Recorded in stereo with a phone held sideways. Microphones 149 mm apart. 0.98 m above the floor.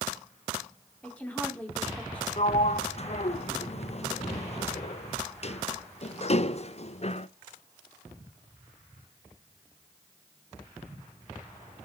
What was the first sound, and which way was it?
A woman speaking, 10° left (ahead or behind).